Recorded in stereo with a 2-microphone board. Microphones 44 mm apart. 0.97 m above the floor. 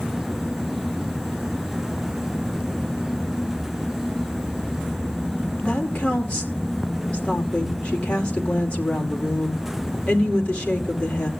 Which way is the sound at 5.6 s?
25° left (ahead or behind).